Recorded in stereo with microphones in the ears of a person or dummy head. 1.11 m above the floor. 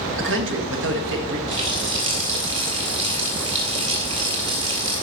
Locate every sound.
0.2 s a man speaking: 65° right (ahead or behind), 1.5 m
1.5 s a running tap: 35° right (ahead or behind), 2.5 m